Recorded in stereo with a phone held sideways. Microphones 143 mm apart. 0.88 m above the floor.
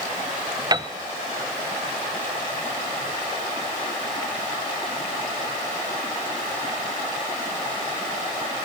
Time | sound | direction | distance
0.7 | a piano | 30° right (ahead or behind) | 0.8 m